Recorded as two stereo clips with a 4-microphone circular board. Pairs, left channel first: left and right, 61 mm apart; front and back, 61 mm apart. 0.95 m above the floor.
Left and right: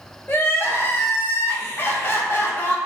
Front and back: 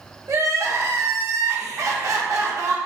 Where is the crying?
145° left, 0.8 m.